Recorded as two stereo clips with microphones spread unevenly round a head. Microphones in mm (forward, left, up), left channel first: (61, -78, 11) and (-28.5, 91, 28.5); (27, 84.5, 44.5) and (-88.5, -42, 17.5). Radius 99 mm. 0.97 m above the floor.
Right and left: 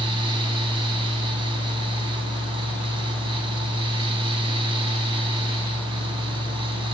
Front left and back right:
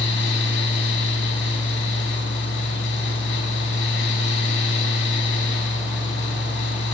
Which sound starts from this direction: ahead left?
A fan, at 0.0 s.